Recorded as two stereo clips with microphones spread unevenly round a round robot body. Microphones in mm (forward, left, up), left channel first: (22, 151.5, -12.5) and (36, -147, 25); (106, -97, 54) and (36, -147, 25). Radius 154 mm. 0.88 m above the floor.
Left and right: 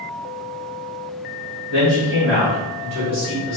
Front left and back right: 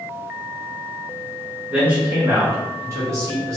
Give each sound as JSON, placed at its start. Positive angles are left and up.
{"t": 1.7, "sound": "a man speaking", "azimuth_deg": -105, "distance_m": 1.2}